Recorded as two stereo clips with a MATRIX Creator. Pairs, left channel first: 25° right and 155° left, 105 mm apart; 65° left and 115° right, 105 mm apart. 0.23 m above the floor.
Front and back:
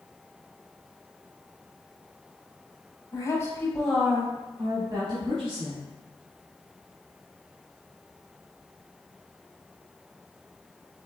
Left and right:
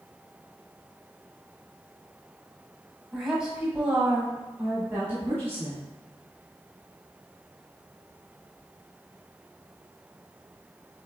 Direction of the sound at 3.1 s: 30° right.